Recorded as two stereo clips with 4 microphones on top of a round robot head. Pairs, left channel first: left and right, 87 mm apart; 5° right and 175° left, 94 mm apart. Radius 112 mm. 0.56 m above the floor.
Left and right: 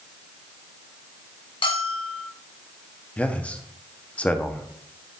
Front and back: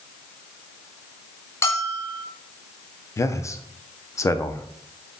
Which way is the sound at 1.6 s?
55° left.